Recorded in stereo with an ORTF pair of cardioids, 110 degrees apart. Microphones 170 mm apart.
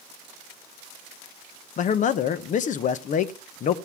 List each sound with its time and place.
1.8 s a man speaking: 50° left, 0.9 m